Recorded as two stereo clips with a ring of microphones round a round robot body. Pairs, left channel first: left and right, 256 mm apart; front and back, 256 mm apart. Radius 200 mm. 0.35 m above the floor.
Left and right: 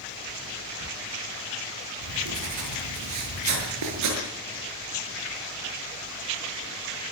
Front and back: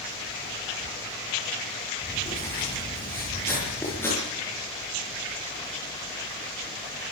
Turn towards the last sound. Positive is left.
turn(degrees=-85)